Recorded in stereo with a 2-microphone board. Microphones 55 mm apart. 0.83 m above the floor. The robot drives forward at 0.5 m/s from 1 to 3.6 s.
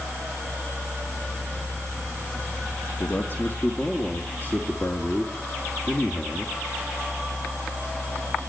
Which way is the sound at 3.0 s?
40° left (ahead or behind).